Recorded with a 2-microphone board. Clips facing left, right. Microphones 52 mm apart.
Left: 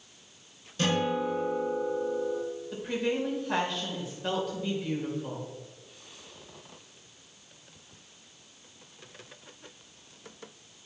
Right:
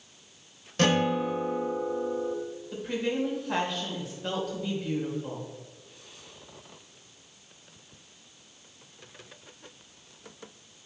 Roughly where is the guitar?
Right.